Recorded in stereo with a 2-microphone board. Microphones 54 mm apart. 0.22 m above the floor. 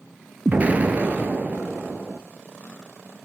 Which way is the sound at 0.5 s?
35° right (ahead or behind).